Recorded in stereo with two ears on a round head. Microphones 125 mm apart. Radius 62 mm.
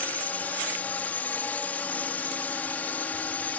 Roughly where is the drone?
Centre.